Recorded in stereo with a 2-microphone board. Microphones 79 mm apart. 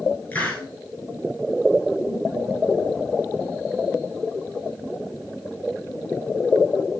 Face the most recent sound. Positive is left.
turn(degrees=20)  # may be behind; listen again after turning